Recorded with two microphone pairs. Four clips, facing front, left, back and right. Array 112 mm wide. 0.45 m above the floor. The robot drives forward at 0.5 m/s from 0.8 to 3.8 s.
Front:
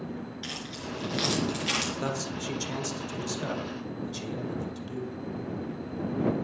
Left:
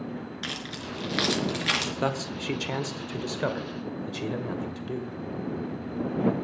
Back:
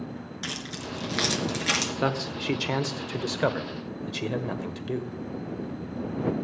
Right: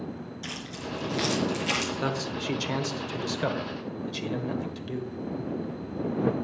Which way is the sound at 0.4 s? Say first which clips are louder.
Left 1 dB, back 2 dB; 125° left.